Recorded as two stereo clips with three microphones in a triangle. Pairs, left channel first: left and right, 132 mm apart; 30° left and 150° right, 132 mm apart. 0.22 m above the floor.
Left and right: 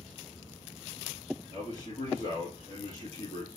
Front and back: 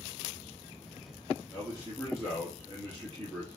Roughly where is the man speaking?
Left.